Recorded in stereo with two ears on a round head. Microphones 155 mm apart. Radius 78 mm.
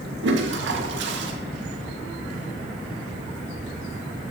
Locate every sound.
0.2 s a toilet flushing: 75° right (ahead or behind), 1.2 m